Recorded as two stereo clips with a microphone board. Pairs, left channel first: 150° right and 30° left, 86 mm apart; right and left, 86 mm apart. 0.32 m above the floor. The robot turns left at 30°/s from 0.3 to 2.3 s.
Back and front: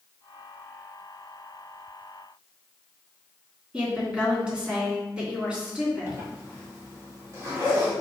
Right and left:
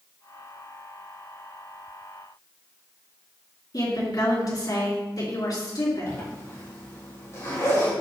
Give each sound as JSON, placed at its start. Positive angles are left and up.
{"t": 3.7, "sound": "a woman speaking", "azimuth_deg": -50, "distance_m": 3.0}
{"t": 6.1, "sound": "a zipper", "azimuth_deg": -30, "distance_m": 3.0}